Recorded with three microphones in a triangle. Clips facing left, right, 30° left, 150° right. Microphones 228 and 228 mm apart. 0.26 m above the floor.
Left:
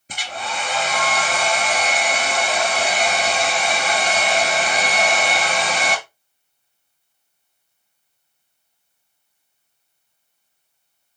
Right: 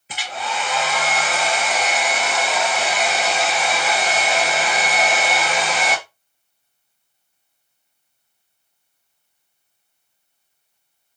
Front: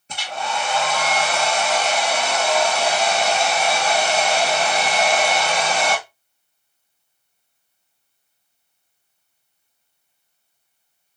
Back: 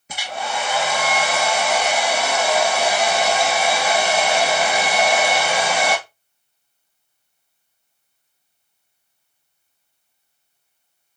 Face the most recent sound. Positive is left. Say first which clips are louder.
# right 2 dB, even
turn(degrees=130)